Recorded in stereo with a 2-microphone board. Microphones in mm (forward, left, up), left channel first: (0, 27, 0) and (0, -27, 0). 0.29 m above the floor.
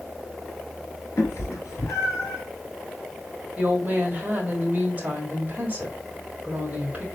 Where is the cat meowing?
55° left (ahead or behind), 1.3 m; by 2.4 s 65° left (ahead or behind), 2.5 m.